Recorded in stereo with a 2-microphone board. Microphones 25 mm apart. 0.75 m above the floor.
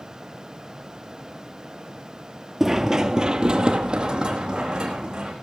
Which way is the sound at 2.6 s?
15° right (ahead or behind).